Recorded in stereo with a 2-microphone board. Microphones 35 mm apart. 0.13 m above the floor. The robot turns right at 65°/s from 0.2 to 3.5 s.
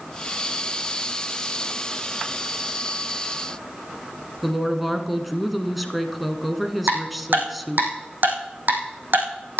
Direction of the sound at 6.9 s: 65° right (ahead or behind).